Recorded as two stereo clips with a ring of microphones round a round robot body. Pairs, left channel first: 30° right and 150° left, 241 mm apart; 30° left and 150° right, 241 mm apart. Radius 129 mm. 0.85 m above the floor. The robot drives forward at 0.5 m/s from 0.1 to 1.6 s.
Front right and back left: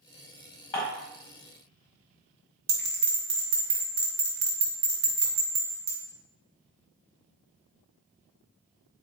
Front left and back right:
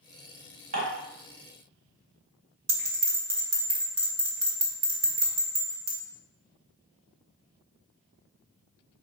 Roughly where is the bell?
Behind.